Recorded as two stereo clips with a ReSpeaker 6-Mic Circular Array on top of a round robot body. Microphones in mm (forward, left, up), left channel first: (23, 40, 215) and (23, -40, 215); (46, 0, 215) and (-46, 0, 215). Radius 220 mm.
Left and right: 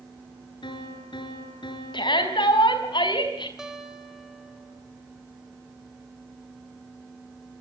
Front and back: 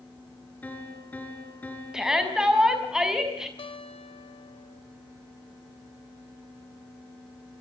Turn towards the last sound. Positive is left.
turn(degrees=-5)